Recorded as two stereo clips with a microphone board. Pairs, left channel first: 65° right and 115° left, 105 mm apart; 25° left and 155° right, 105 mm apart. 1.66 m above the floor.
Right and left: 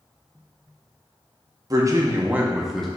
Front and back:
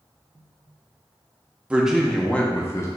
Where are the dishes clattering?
I don't hear dishes clattering.